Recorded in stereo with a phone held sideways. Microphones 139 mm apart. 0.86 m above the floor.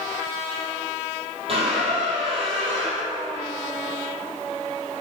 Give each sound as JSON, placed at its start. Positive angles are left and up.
{"t": 1.5, "sound": "a squeak", "side_deg": -45, "distance_m": 2.0}